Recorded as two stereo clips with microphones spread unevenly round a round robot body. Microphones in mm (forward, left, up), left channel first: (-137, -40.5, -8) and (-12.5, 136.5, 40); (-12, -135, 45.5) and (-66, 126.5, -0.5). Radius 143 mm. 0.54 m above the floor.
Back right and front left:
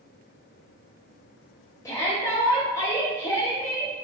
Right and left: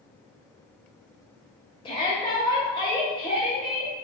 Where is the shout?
150° right, 0.9 m.